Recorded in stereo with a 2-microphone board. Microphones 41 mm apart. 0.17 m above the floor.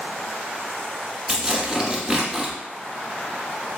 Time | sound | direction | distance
1.3 | tearing paper | 10° right (ahead or behind) | 0.9 m